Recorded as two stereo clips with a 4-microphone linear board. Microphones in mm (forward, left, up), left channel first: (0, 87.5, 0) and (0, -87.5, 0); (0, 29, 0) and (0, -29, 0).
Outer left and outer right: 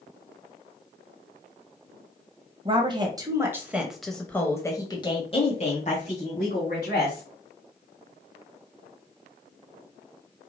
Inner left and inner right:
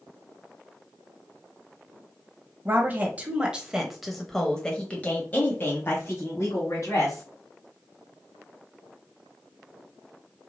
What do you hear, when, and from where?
2.6 s a woman speaking: 30° right (ahead or behind), 1.4 m; by 7.2 s 60° left (ahead or behind), 2.0 m